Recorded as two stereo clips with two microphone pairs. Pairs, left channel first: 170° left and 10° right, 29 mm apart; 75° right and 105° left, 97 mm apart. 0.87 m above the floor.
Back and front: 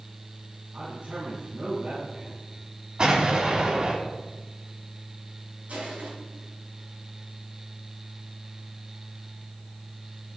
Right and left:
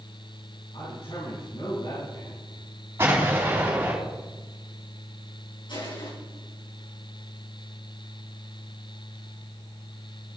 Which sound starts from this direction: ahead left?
An explosion, at 3.0 s.